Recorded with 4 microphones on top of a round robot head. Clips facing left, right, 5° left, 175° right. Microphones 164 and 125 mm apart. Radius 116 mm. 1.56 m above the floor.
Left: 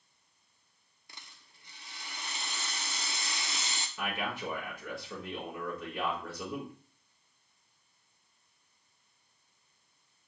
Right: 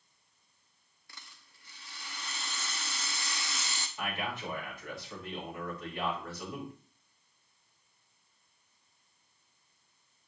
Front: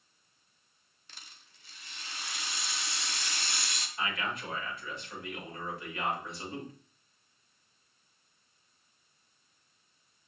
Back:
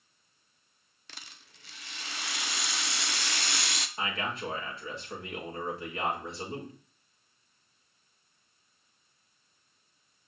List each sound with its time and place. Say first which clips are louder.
1.1 s a rattle: left 1 dB, back 4 dB; 165° left, 0.6 m
4.0 s a man speaking: left 1 dB, back 1 dB; 125° left, 6 m